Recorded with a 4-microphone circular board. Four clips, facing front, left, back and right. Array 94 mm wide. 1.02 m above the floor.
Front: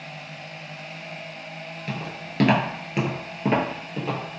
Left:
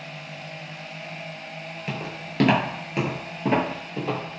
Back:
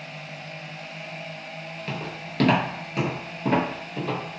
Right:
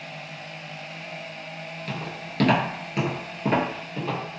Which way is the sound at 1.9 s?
90° left.